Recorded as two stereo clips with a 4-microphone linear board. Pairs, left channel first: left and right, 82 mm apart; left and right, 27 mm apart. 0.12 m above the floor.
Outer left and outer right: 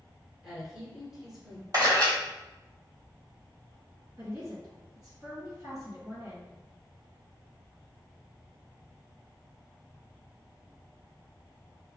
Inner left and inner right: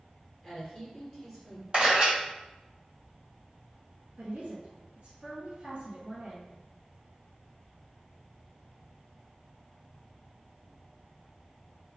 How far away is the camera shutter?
About 1.4 m.